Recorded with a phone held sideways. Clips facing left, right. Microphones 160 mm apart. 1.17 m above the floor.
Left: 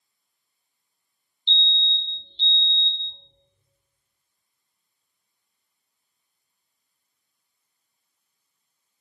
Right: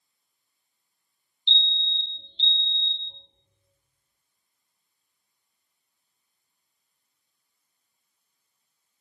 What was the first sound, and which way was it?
A fire alarm, 20° right (ahead or behind).